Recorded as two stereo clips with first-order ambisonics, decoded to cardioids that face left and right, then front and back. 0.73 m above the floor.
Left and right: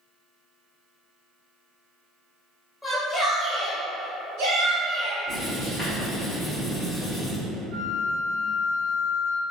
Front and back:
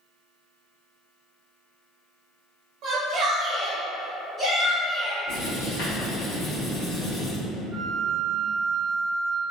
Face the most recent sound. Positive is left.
turn(degrees=-85)